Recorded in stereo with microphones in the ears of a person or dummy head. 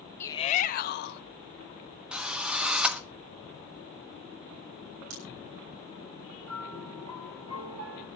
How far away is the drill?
About 1.1 m.